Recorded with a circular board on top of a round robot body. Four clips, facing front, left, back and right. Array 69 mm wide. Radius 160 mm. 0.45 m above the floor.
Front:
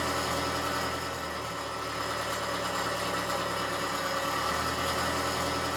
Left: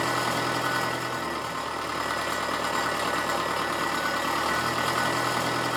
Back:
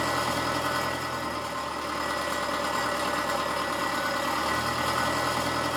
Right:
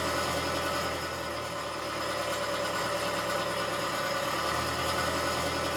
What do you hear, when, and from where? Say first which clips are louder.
0.0 s an engine running: left 4 dB, back 3 dB; 115° left, 0.8 m